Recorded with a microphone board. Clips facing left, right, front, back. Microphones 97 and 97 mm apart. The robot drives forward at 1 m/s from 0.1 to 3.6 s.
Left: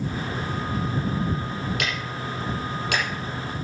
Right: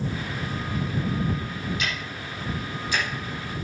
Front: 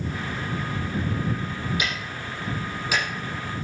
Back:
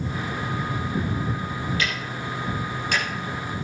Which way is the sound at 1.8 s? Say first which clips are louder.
Left 3 dB, back 2 dB; 75° left.